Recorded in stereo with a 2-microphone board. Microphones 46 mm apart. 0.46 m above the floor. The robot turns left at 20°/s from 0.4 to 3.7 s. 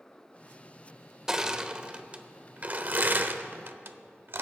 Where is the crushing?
15° right (ahead or behind), 0.6 m; by 4.4 s 60° right (ahead or behind), 0.6 m.